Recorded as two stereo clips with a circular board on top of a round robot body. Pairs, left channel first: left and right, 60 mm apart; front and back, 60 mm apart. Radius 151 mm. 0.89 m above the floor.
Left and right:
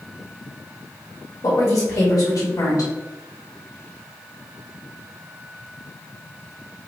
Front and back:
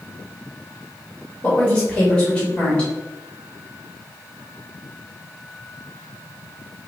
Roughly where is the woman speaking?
Ahead left.